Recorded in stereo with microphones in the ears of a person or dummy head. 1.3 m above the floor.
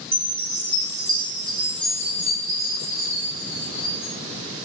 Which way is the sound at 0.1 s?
5° left (ahead or behind).